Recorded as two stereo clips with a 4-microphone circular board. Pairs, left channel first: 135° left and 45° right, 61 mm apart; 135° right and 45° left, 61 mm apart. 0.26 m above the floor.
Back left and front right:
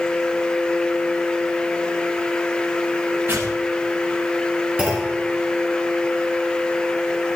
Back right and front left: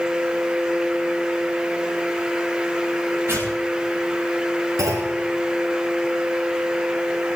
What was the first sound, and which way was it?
Tearing paper, 5° right.